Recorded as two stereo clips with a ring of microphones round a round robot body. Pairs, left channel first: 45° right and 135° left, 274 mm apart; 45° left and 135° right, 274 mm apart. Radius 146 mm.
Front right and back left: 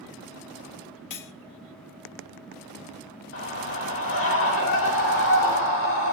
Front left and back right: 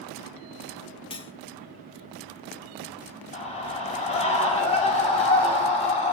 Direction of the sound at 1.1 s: 25° right.